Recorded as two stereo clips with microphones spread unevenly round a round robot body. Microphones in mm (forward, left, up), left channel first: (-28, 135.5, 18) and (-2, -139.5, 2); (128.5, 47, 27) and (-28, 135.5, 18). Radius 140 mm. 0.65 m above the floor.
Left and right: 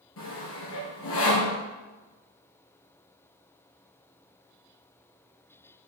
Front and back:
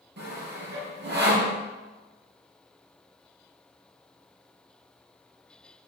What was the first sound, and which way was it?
Sawing, 135° left.